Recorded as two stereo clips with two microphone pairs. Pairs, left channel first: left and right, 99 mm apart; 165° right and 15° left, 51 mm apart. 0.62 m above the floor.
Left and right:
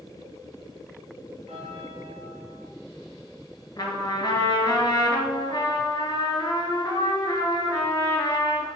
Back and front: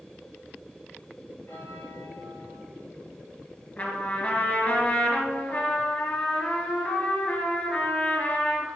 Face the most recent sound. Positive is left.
turn(degrees=140)